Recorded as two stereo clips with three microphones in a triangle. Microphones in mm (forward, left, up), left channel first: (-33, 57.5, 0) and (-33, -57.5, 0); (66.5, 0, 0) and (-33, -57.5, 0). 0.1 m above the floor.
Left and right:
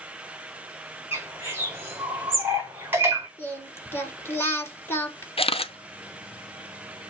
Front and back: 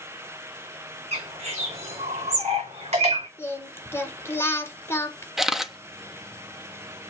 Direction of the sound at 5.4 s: 125° left.